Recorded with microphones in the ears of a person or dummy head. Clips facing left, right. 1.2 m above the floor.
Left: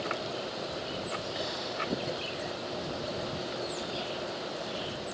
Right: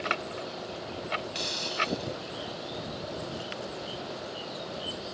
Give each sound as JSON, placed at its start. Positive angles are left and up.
{"t": 1.4, "sound": "a hiss", "side_deg": -40}